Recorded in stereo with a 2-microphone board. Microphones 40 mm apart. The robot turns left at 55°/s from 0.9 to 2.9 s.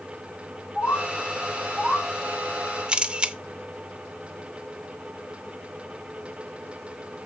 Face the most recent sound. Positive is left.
turn(degrees=-25)  # may be behind; listen again after turning